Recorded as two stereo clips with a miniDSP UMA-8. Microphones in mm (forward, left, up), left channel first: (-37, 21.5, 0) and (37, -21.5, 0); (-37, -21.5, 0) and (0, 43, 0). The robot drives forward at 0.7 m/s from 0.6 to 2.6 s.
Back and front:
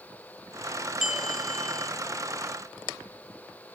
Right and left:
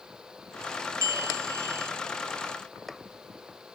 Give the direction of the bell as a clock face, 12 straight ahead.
10 o'clock.